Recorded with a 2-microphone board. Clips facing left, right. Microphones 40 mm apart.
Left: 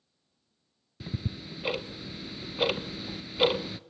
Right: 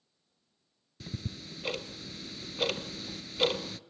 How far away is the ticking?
About 0.6 m.